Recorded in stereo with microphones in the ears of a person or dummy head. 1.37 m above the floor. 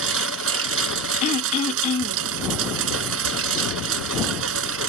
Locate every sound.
0.0 s a lawn mower: 75° right (ahead or behind)
1.2 s throat clearing: 35° left (ahead or behind)